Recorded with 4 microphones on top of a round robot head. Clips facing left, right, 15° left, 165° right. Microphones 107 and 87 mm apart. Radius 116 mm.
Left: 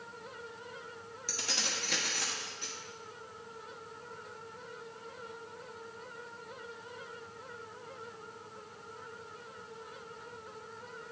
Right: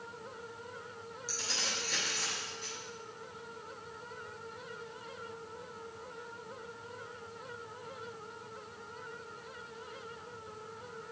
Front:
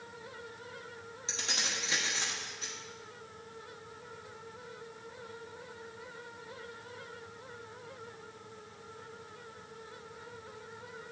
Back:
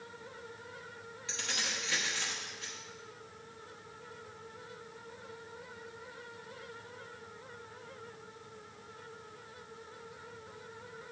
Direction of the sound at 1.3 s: 75° left.